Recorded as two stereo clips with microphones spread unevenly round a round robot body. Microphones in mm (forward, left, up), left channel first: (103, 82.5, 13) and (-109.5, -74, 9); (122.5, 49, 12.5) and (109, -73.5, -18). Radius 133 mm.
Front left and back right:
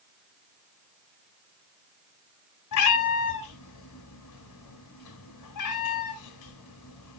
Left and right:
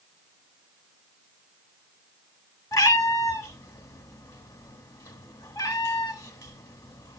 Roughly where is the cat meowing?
Ahead left.